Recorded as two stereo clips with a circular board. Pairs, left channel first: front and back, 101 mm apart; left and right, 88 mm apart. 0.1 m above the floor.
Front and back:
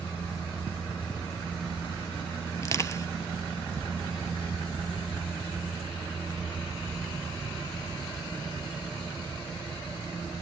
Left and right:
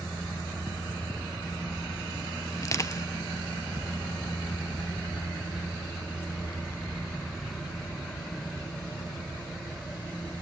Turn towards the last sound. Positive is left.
turn(degrees=50)